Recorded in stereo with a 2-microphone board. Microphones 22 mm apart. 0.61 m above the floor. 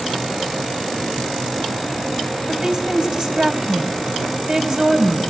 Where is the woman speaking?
40° right (ahead or behind), 3 m.